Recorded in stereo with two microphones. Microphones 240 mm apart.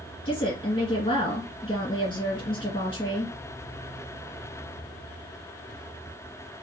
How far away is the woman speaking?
About 1.6 m.